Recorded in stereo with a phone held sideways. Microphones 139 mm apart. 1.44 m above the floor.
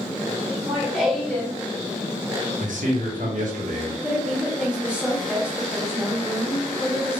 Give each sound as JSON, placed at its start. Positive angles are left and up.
{"t": 0.5, "sound": "laughter", "side_deg": -20, "distance_m": 1.2}
{"t": 2.6, "sound": "a man speaking", "side_deg": -70, "distance_m": 0.9}
{"t": 4.0, "sound": "a woman speaking", "side_deg": -5, "distance_m": 1.2}